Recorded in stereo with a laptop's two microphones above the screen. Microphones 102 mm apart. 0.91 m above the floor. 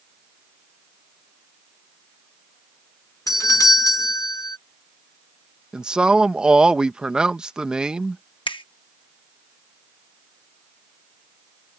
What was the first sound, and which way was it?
A doorbell, 35° left (ahead or behind).